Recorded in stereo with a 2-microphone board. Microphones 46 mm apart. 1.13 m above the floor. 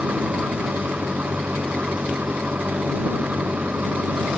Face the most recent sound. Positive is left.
turn(degrees=-40)  # may be behind; listen again after turning